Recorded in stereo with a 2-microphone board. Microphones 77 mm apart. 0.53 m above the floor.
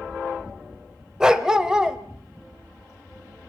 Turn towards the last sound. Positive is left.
turn(degrees=-10)  # may be behind; listen again after turning